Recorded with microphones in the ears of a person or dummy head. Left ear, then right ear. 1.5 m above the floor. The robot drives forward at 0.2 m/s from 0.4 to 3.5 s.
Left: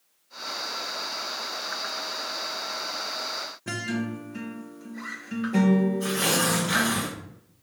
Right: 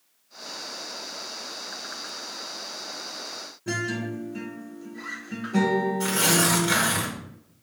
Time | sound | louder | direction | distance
3.7 | a guitar | right 5 dB | 35° left (ahead or behind) | 0.8 m
6.0 | tearing paper | right 2 dB | 35° right (ahead or behind) | 1.1 m